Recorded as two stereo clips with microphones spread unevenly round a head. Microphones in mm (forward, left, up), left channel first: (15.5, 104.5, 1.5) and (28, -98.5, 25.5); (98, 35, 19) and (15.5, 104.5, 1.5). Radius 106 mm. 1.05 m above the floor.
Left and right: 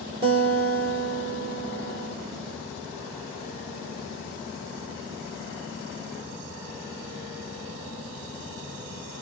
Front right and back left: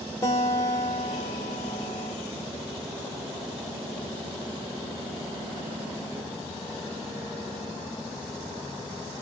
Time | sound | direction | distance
0.2 | a guitar | 60° right | 0.9 m